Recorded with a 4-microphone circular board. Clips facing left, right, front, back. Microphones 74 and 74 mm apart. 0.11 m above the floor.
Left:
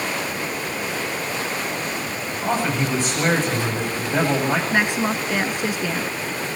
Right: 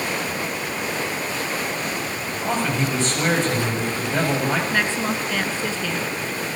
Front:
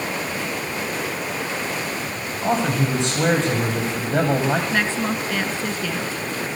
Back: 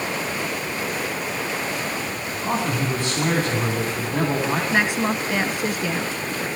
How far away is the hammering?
I don't hear hammering.